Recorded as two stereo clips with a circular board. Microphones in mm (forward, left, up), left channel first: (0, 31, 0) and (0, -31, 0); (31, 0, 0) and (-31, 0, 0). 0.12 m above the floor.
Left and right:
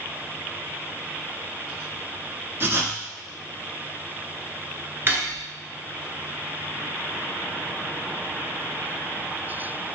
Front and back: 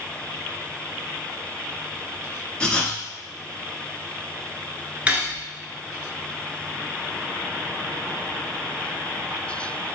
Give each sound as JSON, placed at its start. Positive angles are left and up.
{"t": 2.6, "sound": "writing", "azimuth_deg": -65, "distance_m": 1.0}
{"t": 5.1, "sound": "cutlery clinking", "azimuth_deg": -120, "distance_m": 1.0}